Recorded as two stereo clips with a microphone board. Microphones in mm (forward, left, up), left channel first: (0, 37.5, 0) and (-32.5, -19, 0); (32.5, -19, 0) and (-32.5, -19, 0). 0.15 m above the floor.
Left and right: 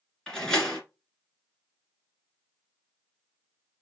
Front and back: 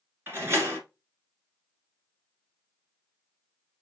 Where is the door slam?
140° left, 1.6 m.